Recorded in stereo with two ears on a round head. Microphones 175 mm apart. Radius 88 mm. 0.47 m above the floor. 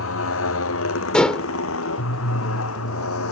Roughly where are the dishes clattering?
Centre.